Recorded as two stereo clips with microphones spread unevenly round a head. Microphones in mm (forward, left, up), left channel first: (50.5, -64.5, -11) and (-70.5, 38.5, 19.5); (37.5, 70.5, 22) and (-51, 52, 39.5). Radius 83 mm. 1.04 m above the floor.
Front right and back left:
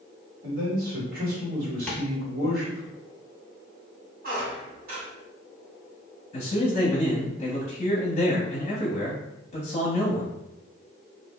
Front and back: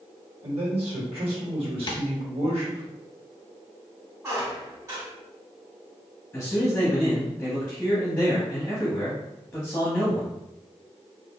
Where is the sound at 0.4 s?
175° left, 1.4 m.